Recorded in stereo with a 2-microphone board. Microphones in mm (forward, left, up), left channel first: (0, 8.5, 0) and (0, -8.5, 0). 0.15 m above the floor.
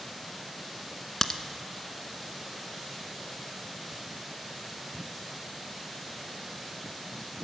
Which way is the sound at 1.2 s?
35° left (ahead or behind).